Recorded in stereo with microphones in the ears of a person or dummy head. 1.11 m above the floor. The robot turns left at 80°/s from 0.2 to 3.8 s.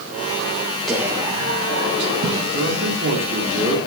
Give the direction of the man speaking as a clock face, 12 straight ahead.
3 o'clock.